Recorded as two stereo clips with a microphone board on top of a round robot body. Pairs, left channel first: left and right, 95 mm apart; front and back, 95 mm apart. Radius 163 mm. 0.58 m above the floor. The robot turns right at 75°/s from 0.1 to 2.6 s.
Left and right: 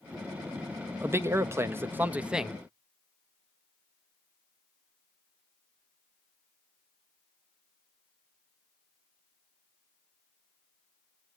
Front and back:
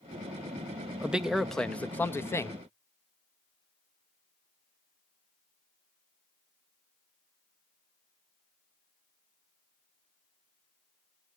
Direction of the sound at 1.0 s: 120° right.